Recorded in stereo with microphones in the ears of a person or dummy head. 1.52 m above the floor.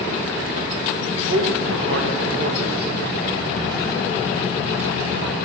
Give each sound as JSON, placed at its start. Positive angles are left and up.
{"t": 1.1, "sound": "a man speaking", "side_deg": -75, "distance_m": 0.8}